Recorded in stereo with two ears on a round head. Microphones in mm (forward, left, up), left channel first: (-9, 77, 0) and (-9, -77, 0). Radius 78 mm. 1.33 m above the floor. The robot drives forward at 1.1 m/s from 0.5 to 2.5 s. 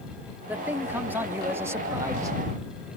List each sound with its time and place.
0.5 s a man speaking: 10° right (ahead or behind); by 2.4 s 20° right (ahead or behind)